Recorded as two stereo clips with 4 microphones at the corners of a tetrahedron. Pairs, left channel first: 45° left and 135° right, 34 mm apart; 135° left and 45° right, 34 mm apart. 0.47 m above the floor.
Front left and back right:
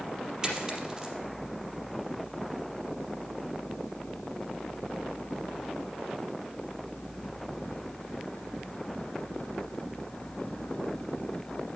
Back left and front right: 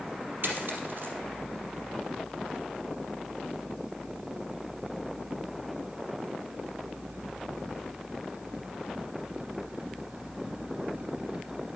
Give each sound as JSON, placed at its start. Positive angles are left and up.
{"t": 0.4, "sound": "a dropped coin", "azimuth_deg": -70, "distance_m": 4.0}